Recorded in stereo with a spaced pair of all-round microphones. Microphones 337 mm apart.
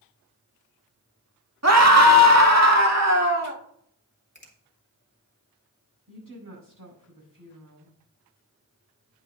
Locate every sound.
1.6 s a scream: 45° right (ahead or behind), 1.5 m; by 3.6 s 50° right (ahead or behind), 2.5 m
4.3 s a finger snap: 30° left (ahead or behind), 2.5 m
6.1 s a woman speaking: 65° right (ahead or behind), 6 m